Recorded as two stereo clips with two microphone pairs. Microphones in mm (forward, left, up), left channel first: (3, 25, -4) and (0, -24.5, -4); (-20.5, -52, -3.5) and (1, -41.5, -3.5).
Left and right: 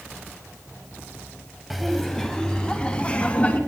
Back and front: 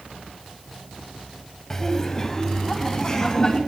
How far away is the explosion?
I don't hear an explosion.